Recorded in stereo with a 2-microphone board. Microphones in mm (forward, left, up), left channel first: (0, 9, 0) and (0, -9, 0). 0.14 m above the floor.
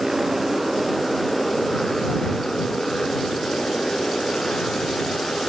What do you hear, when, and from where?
0.0 s a motorcycle: 20° right (ahead or behind); by 5.5 s 60° left (ahead or behind)